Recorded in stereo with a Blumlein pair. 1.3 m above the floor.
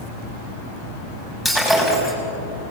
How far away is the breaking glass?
About 6 m.